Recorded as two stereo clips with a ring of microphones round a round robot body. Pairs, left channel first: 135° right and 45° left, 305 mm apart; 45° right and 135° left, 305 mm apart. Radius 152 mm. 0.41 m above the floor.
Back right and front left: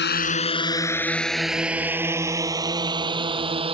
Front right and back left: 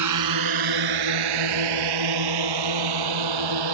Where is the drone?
165° left; by 3.7 s 120° left.